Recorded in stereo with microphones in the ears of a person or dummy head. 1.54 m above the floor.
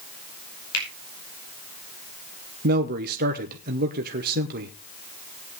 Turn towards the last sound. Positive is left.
turn(degrees=-55)  # may be behind; listen again after turning